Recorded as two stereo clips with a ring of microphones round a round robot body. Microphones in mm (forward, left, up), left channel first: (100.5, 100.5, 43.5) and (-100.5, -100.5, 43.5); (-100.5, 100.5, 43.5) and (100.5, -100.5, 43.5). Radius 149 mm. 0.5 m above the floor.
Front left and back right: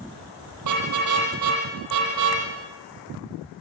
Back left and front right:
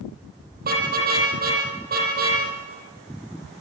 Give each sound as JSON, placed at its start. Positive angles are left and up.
{"t": 0.6, "sound": "a car horn", "azimuth_deg": -105, "distance_m": 8.5}